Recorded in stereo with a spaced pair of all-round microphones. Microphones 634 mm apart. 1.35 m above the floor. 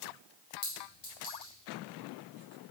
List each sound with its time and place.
0.6 s a clink: 70° left (ahead or behind), 1.9 m